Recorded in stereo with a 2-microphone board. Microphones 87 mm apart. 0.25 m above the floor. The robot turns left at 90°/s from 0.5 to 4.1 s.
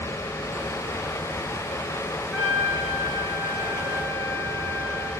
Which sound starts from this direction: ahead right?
A trumpet, at 2.3 s.